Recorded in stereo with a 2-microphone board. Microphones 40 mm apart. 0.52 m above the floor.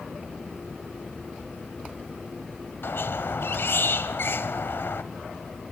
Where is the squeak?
75° left (ahead or behind), 1.7 m.